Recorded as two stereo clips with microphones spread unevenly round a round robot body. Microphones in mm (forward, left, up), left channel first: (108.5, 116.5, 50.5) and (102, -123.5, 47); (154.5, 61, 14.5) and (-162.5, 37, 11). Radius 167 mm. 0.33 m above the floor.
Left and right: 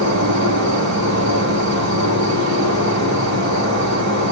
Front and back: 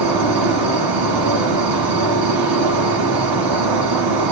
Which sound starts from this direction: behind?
An insect, at 0.0 s.